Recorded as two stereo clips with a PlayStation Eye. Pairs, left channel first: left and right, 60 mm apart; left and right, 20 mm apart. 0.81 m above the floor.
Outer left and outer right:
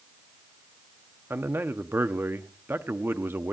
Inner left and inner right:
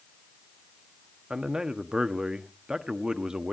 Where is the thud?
I don't hear a thud.